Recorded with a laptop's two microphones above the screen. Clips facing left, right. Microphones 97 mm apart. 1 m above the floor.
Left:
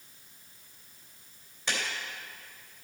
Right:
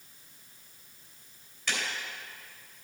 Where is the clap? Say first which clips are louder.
Left 1 dB; 25° left (ahead or behind), 3 m.